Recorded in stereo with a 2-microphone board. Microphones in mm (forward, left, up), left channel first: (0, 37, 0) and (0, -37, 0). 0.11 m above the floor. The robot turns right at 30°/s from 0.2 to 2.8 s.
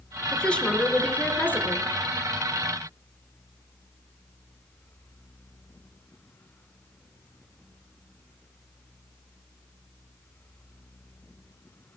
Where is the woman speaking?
20° left, 1.3 m; by 1.9 s 70° left, 1.3 m.